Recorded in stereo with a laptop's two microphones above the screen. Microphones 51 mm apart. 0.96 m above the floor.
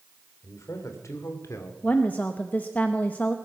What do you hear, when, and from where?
0.4 s a man speaking: 80° left, 3 m
1.8 s a woman speaking: 30° left (ahead or behind), 0.7 m